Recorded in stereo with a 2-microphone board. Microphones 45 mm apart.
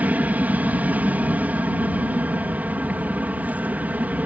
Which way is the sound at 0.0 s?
35° right (ahead or behind).